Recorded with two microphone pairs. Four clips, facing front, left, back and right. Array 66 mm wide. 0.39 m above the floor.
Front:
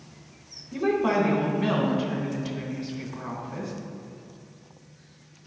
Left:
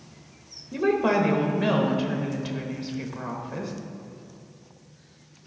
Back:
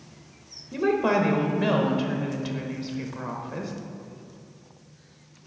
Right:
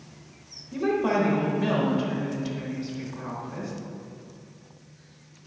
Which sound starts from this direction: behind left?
A woman speaking, at 0.7 s.